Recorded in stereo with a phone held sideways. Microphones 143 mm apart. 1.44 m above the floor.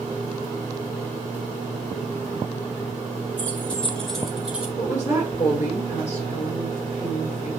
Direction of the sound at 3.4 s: 10° left (ahead or behind).